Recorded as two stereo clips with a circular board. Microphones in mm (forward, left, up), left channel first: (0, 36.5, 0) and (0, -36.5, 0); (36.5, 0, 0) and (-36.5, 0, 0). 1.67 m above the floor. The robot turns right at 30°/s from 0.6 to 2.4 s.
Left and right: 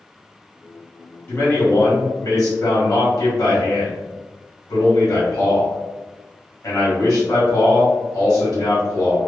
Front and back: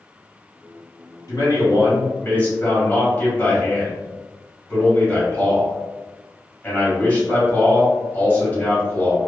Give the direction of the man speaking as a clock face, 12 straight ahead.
11 o'clock.